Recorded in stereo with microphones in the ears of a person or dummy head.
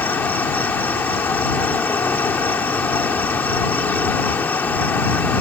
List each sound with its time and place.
0.0 s an insect: 10° left (ahead or behind)